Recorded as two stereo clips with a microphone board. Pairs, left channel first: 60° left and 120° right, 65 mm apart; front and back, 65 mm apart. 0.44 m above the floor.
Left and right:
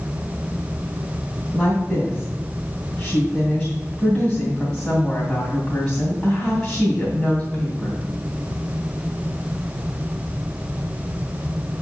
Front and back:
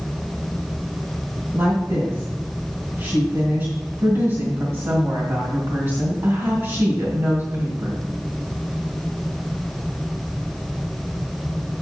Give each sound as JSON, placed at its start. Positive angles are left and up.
{"t": 1.5, "sound": "a woman speaking", "azimuth_deg": 140, "distance_m": 2.5}